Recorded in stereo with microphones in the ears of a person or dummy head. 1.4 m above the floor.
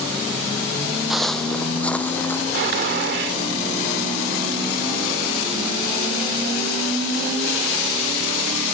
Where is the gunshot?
60° right (ahead or behind).